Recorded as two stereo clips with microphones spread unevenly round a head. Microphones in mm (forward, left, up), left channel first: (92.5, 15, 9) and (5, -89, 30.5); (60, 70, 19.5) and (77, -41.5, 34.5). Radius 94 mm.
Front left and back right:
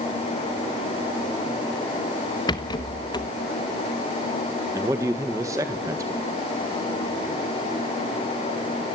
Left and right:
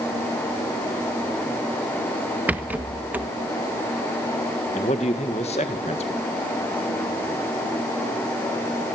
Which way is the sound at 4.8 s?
155° left.